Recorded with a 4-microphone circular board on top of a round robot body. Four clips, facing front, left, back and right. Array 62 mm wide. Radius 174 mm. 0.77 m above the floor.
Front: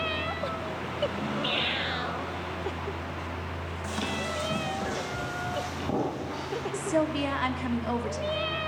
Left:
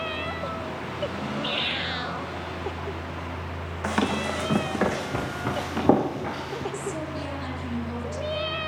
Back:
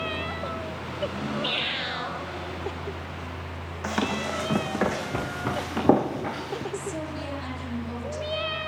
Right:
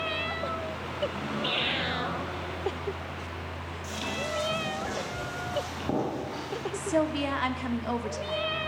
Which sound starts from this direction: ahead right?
A woman speaking, at 6.7 s.